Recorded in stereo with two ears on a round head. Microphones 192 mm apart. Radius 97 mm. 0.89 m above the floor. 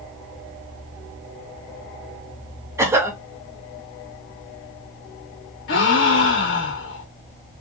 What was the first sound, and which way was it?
A cough, 15° right (ahead or behind).